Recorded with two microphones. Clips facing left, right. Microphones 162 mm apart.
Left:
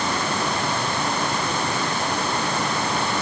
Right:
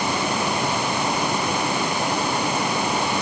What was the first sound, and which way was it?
Only background noise.